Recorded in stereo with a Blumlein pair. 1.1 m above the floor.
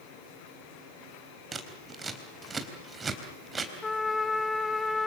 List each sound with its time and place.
1.5 s scissors: 15° right, 3.5 m
3.8 s a trumpet: 10° left, 1.9 m